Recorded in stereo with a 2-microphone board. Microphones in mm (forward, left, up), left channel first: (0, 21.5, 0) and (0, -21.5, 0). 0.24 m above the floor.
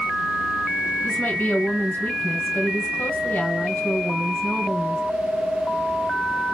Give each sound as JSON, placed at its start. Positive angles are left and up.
{"t": 1.0, "sound": "a woman speaking", "side_deg": 45, "distance_m": 1.9}